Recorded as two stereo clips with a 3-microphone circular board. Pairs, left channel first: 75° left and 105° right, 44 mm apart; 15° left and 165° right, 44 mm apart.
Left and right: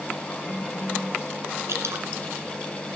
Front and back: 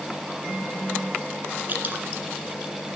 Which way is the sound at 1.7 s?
120° right.